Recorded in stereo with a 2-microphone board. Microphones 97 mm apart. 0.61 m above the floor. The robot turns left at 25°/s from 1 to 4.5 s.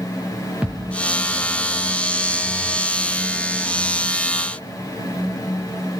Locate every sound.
0.6 s a thud: 15° right (ahead or behind), 4 m